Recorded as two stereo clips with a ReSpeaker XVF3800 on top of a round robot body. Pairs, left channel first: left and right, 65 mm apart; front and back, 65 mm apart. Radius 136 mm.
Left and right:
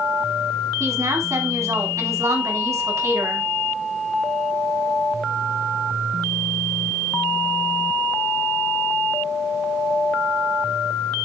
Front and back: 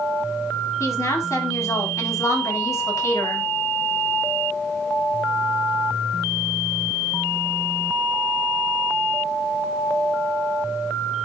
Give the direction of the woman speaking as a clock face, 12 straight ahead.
2 o'clock.